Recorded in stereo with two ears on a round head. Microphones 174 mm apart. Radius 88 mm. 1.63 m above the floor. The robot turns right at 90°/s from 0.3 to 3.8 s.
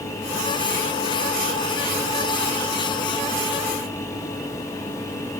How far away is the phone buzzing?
No phone buzzing in this recording.